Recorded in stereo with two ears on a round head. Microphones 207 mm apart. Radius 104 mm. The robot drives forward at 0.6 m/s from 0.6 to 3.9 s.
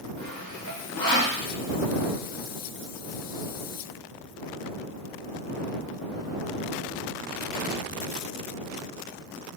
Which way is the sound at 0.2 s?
65° left (ahead or behind).